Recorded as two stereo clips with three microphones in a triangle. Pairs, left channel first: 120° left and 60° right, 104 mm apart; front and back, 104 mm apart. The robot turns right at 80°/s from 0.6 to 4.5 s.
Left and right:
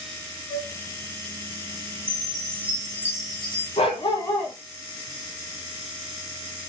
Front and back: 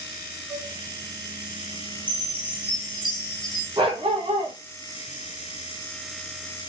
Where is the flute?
105° right, 4 m; by 0.7 s 100° right, 4 m.